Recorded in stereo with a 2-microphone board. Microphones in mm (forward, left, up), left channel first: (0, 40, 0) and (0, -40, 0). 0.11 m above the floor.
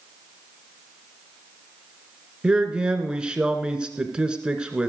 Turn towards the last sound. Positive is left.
turn(degrees=-10)  # may be behind; listen again after turning